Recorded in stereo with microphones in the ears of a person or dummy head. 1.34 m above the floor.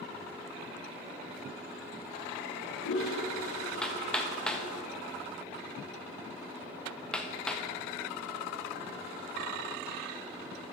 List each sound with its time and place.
2.4 s a toilet flushing: 80° left, 2.5 m
3.8 s hammering: 10° left (ahead or behind), 1.2 m